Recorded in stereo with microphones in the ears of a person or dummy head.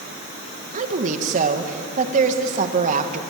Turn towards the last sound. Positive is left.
turn(degrees=-45)  # may be behind; listen again after turning